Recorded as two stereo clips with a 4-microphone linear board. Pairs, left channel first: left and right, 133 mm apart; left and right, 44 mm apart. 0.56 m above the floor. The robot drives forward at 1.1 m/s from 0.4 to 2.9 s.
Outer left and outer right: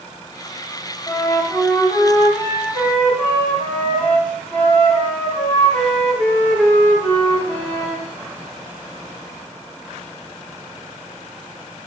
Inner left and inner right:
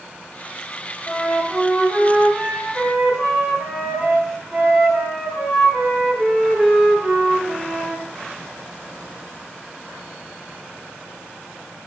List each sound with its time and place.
1.1 s a flute: 10° left (ahead or behind), 2 m; by 8.0 s 5° left (ahead or behind), 4 m